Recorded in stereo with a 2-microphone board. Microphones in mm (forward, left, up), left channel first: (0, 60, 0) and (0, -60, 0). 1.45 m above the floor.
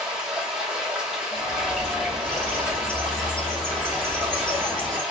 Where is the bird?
10° left (ahead or behind), 1.1 m.